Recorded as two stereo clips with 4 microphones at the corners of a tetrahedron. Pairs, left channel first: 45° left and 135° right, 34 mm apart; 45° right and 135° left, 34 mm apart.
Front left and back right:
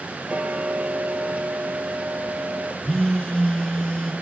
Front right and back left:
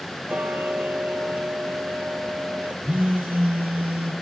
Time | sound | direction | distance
0.3 | ticking | straight behind | 0.6 m
2.8 | a phone buzzing | 115° left | 1.8 m